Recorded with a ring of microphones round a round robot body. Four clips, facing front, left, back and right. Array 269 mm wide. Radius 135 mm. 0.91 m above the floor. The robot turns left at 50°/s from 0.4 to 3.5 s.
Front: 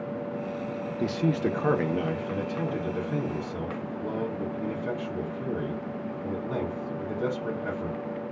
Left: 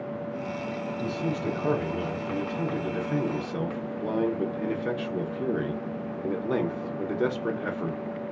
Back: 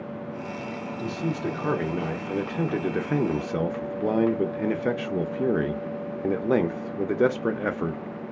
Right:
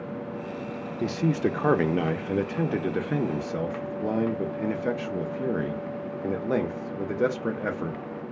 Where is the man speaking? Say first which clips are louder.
Right 6 dB, front 3 dB; 45° right, 0.6 m; by 8.0 s 170° right, 0.6 m.